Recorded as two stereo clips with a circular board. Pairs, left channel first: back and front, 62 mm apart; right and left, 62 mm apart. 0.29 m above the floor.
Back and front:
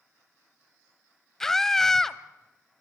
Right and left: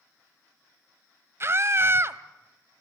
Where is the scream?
100° left, 1.3 m.